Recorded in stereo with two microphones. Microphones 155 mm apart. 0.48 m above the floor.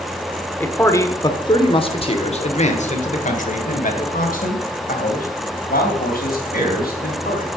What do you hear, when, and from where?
0.6 s a man speaking: 10° left (ahead or behind), 1.4 m; by 7.5 s 75° left (ahead or behind), 4 m